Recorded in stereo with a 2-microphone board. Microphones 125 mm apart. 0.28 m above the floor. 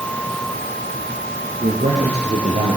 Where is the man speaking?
80° right, 8 m; by 2.8 s 75° right (ahead or behind), 8.5 m.